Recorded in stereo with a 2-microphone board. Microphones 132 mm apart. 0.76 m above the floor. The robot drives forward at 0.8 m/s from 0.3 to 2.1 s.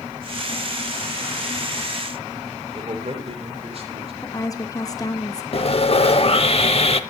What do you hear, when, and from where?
2.7 s a man speaking: 50° right (ahead or behind), 3 m
4.2 s a woman speaking: 25° left (ahead or behind), 0.9 m
5.5 s sawing: 50° left (ahead or behind), 0.8 m